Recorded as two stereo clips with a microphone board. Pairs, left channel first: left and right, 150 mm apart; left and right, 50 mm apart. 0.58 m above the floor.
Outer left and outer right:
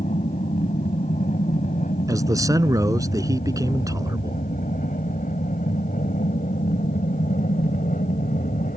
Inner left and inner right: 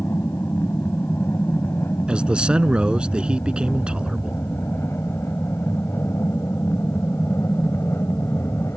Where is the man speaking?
25° right (ahead or behind).